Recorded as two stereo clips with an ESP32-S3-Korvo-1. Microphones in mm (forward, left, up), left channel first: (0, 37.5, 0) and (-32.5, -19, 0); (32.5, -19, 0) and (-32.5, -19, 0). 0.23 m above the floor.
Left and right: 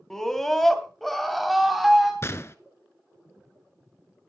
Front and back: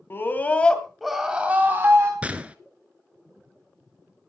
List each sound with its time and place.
0.1 s a scream: 20° right, 2 m; by 2.1 s 155° left, 2 m
2.2 s a gunshot: 110° left, 0.8 m